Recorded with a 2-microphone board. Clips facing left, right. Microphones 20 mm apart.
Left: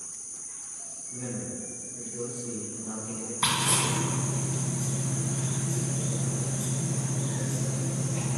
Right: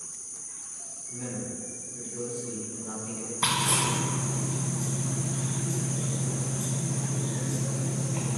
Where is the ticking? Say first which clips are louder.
Even; 55° right (ahead or behind), 2.0 m.